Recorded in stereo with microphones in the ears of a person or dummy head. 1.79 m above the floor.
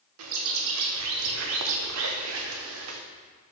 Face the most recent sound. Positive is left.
turn(degrees=-75)  # may be behind; listen again after turning